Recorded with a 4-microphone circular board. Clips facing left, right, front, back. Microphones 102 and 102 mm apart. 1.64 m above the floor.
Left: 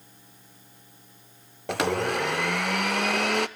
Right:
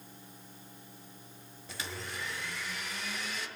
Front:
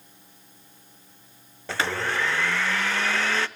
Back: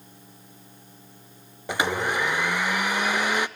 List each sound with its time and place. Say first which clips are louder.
1.7 s a blender: left 18 dB, back 2 dB; 105° left, 0.6 m